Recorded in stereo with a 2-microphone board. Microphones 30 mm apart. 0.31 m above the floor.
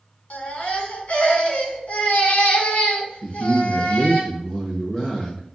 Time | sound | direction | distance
0.3 | a baby crying | 50° left (ahead or behind) | 1.2 m
3.2 | a man speaking | 25° left (ahead or behind) | 1.1 m